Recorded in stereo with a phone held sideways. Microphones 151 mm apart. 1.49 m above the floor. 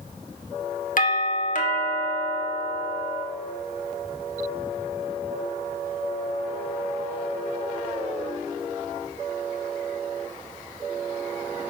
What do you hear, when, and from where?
1.0 s a doorbell: 65° left (ahead or behind), 1.6 m